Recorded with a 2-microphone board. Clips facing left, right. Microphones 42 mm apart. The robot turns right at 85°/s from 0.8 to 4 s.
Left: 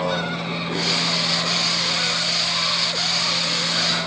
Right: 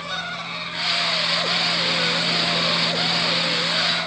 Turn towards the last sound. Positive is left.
turn(degrees=20)